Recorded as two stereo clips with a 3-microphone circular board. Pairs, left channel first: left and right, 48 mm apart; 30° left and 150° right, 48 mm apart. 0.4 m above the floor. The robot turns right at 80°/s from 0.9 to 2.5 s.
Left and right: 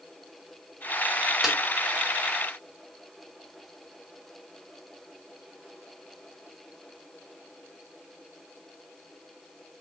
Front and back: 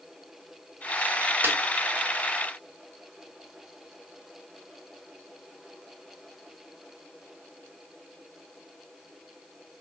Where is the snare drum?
Straight behind, 1.5 m; by 1.6 s 170° right, 1.5 m.